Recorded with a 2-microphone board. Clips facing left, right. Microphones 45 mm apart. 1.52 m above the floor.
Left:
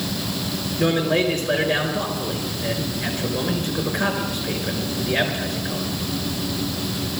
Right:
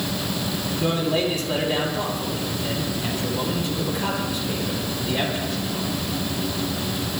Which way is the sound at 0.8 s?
60° left (ahead or behind).